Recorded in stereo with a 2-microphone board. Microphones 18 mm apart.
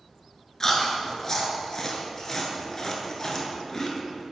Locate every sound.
0.6 s chewing: 30° left (ahead or behind), 1.0 m